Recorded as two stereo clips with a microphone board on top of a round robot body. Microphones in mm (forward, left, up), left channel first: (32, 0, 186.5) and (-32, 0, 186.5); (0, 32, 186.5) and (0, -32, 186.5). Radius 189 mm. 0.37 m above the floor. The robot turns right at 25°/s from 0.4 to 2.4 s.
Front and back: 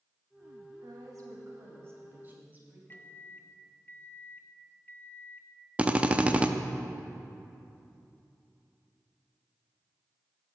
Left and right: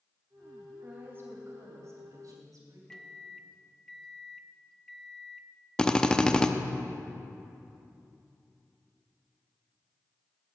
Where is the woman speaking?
155° right, 3 m; by 2.8 s 115° right, 3 m.